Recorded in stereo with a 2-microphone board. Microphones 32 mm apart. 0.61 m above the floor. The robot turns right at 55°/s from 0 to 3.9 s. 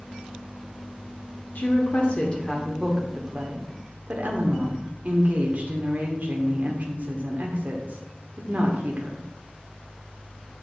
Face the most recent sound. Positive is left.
turn(degrees=-125)